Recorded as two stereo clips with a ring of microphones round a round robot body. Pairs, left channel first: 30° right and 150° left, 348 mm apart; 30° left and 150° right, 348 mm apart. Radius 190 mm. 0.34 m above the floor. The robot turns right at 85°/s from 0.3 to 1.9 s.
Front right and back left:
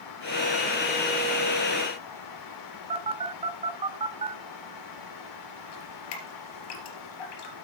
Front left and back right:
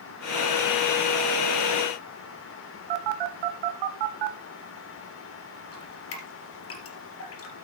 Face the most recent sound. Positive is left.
turn(degrees=-20)